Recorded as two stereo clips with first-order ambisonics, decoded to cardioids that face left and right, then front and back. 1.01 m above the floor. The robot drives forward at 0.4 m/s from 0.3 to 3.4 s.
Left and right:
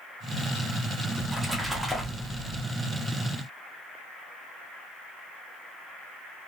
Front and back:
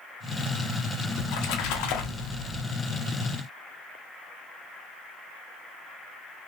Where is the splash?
5° right, 1.2 m; by 2.6 s 10° right, 0.6 m.